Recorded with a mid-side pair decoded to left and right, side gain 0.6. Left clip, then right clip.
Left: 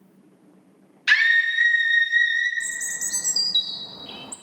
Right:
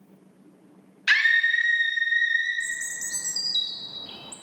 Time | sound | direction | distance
1.1 | a scream | 5° left | 1.4 m
2.6 | a bird | 30° left | 0.5 m